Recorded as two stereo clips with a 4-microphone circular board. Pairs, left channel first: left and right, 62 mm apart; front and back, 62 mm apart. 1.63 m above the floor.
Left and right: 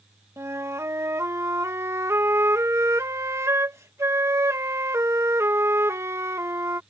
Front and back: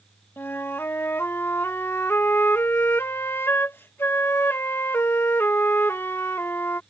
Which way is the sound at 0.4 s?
50° right.